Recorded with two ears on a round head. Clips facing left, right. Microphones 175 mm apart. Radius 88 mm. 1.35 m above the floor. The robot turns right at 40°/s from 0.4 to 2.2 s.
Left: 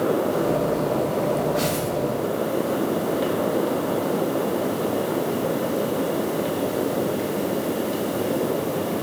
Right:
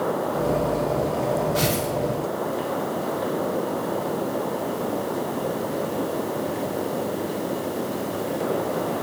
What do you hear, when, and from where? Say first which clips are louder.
1.6 s tearing paper: even; 50° right (ahead or behind), 2.5 m; by 1.9 s 35° right (ahead or behind), 2.5 m